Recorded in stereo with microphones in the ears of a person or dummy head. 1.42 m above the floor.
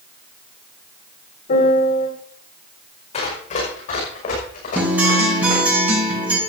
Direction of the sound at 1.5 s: 50° left (ahead or behind).